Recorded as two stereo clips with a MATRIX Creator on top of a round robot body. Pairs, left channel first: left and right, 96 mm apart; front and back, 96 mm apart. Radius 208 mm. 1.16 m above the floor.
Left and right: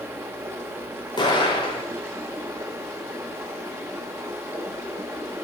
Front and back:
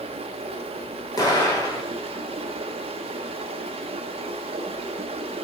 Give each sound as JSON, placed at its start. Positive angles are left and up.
{"t": 0.0, "sound": "running water", "azimuth_deg": -160, "distance_m": 0.8}
{"t": 1.2, "sound": "an explosion", "azimuth_deg": 50, "distance_m": 3.5}